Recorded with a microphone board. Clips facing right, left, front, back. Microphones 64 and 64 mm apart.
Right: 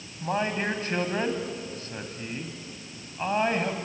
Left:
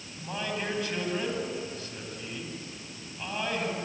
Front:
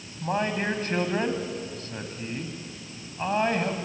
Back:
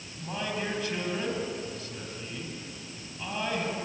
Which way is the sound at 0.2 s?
45° right.